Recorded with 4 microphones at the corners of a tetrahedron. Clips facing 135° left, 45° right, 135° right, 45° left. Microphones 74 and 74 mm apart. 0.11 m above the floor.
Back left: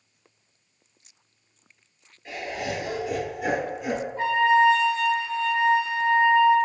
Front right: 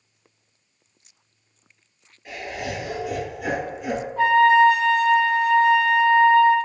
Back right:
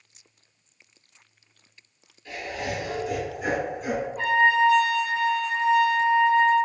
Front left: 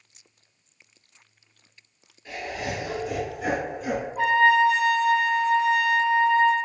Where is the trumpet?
35° right, 0.9 m.